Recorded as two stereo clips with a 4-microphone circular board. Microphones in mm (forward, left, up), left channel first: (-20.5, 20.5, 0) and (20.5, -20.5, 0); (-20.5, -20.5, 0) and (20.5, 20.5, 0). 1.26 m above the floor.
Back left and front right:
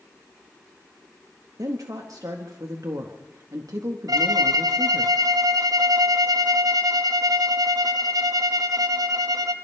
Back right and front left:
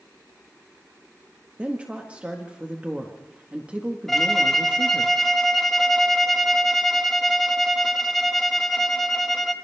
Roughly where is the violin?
Ahead right.